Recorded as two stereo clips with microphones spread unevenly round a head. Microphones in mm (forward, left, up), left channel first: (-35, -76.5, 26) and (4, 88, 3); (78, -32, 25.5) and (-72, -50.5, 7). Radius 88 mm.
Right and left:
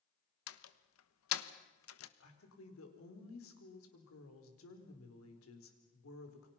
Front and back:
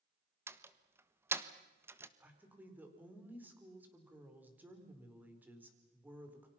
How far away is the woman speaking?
About 4.5 m.